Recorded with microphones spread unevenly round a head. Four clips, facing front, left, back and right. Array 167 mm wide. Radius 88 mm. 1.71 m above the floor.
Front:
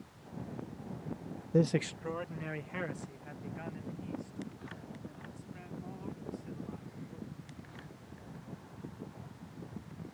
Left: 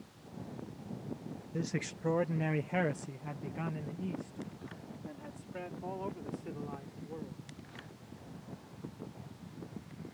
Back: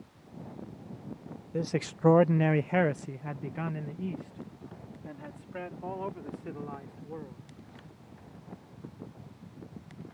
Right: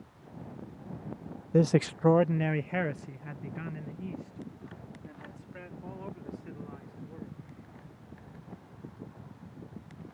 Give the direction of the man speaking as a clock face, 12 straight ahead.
2 o'clock.